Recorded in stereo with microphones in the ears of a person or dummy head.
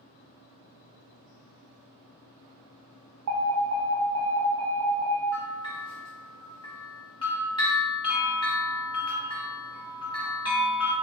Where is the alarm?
75° right (ahead or behind), 0.6 m.